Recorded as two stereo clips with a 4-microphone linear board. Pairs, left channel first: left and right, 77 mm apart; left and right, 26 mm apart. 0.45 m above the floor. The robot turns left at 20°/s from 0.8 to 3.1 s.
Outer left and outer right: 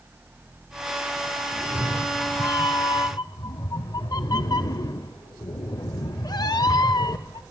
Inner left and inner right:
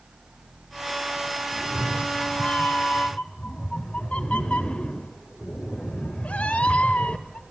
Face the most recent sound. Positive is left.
turn(degrees=115)